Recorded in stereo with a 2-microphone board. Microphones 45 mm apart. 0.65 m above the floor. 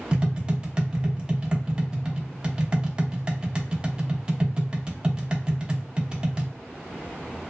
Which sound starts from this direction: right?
Tapping, at 0.1 s.